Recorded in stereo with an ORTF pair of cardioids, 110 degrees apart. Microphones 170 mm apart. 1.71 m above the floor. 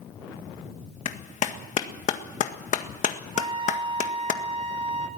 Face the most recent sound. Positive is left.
turn(degrees=-30)